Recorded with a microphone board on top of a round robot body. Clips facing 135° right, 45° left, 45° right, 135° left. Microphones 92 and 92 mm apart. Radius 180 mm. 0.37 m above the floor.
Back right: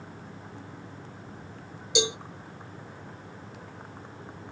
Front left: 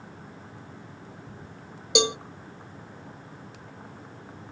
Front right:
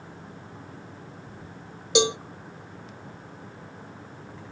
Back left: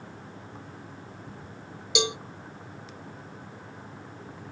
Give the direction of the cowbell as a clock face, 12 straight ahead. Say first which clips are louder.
Front left 3 dB, front right 6 dB; 12 o'clock.